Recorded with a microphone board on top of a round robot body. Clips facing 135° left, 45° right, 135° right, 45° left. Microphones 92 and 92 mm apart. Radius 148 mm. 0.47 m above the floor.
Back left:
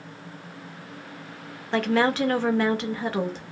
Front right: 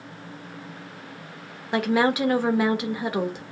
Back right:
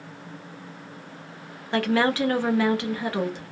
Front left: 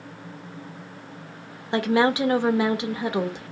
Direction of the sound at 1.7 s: 15° left.